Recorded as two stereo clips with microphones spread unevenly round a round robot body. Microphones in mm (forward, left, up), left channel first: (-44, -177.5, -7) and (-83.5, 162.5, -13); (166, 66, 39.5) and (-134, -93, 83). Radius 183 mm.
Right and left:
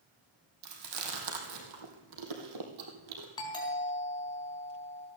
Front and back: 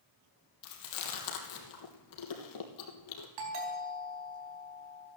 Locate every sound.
0.6 s chewing: 60° left, 3 m
3.4 s a doorbell: 160° right, 4.5 m